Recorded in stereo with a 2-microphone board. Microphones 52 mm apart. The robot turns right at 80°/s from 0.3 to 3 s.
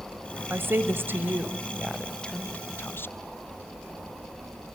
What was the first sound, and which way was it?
A woman speaking, 115° right.